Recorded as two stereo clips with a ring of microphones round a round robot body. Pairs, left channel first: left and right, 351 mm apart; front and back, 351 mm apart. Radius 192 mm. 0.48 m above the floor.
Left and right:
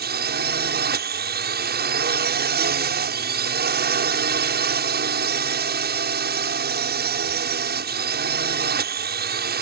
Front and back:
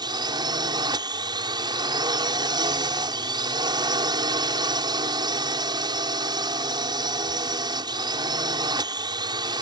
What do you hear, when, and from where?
0.0 s a drone: 115° right